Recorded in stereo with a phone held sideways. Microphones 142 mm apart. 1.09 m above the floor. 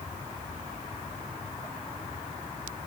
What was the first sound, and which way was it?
Only background noise.